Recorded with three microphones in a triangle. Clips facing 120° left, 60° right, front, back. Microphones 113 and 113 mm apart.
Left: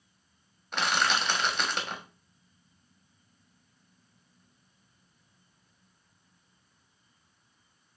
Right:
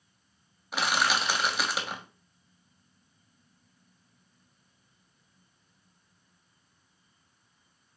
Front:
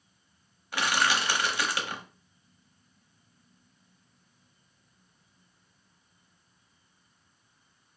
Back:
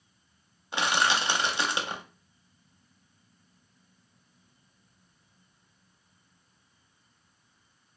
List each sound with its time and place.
0.7 s crushing: 140° right, 0.5 m